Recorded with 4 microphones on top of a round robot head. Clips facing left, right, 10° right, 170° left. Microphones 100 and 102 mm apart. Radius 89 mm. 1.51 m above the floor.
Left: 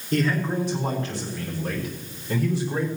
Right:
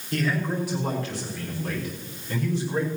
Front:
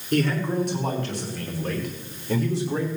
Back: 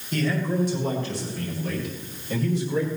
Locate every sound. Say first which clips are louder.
0.1 s a man speaking: left 3 dB, front 2 dB; 20° left, 6 m; by 2.9 s 5° left, 5 m